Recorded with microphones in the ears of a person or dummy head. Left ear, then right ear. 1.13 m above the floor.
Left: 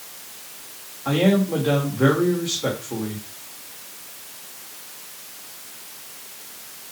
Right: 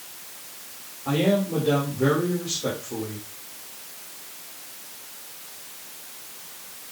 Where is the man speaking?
50° left (ahead or behind), 2.5 m.